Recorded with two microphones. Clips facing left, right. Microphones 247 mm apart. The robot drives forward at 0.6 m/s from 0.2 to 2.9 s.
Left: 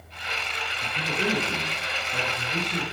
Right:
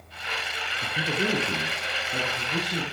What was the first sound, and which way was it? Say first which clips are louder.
A man speaking: right 1 dB; 30° right (ahead or behind).